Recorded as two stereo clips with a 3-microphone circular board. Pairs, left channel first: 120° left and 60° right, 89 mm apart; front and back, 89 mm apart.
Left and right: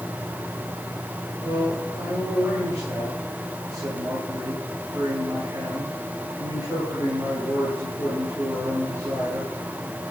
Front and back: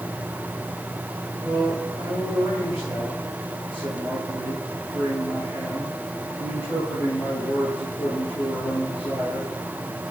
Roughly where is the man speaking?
Ahead.